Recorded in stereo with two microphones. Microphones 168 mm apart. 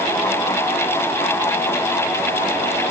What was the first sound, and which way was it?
Only background noise.